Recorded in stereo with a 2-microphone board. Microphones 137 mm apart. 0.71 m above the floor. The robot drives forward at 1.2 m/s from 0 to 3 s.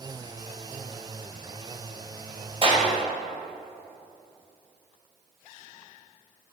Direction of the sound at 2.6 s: 40° right (ahead or behind).